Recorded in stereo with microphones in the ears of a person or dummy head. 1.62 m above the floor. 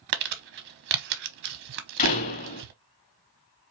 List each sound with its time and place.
0.1 s crumpling: 55° right (ahead or behind), 0.9 m
2.0 s a door slam: 45° left (ahead or behind), 1.6 m